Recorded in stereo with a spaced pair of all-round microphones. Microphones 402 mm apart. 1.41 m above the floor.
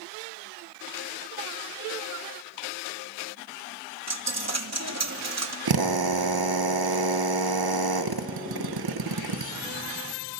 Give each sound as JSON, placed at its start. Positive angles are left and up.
{"t": 4.1, "sound": "a dropped coin", "side_deg": -40, "distance_m": 0.9}
{"t": 5.7, "sound": "a drill", "side_deg": -60, "distance_m": 0.8}